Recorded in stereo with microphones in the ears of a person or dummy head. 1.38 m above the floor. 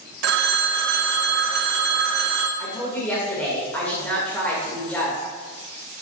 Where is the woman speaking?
10° left (ahead or behind), 2 m.